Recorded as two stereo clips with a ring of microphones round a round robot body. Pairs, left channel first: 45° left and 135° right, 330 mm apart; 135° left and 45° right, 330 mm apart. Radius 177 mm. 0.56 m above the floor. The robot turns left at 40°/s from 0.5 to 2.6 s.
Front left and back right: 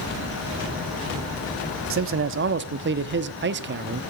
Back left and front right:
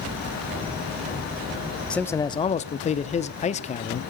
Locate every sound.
1.9 s a man speaking: 140° right, 0.8 m; by 4.0 s 165° right, 0.8 m